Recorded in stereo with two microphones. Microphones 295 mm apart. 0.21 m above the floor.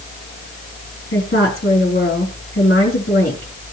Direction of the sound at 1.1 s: 40° left (ahead or behind).